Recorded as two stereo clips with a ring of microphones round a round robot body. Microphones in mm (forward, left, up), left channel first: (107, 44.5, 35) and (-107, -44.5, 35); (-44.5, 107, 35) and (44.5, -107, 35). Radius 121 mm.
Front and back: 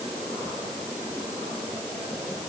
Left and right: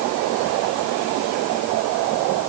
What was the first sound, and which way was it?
Only background noise.